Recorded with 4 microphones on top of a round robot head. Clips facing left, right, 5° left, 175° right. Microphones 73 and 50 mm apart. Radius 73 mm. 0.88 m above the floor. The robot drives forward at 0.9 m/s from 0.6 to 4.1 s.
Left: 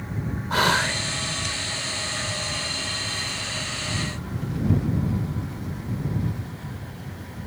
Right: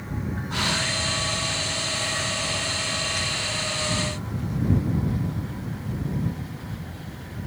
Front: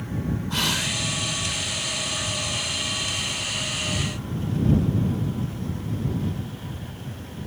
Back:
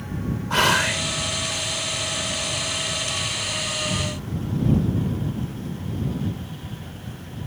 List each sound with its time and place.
0.5 s whispering: 140° left; by 1.0 s 145° left